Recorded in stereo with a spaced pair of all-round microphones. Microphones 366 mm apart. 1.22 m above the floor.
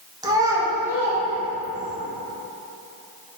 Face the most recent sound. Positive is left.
turn(degrees=-5)  # may be behind; listen again after turning